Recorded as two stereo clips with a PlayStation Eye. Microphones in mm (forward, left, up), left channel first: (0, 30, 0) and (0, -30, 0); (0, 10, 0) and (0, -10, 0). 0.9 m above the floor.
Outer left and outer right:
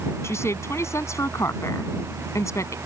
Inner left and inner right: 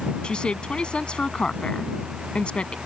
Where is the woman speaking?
50° left (ahead or behind); by 2.8 s 60° left (ahead or behind).